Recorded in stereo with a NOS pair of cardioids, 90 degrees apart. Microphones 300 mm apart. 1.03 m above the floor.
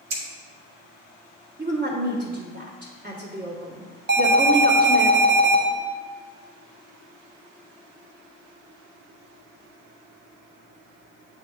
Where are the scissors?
65° right, 1.6 m.